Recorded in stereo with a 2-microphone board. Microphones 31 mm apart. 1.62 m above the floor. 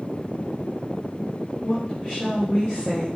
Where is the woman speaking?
45° left (ahead or behind), 0.9 m.